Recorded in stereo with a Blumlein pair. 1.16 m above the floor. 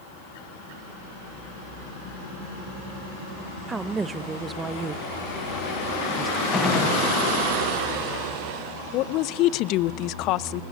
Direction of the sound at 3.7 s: 15° right.